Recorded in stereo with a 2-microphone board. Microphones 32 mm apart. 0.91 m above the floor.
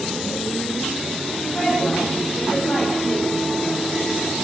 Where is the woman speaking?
30° left (ahead or behind), 7.5 m; by 3.3 s 10° left (ahead or behind), 7 m.